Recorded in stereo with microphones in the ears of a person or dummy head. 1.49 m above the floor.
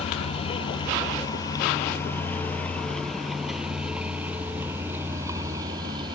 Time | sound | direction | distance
0.0 | a vehicle | 30° left (ahead or behind) | ?